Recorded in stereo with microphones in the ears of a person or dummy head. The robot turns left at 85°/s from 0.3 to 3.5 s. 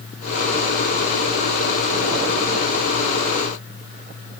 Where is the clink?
No clink in this recording.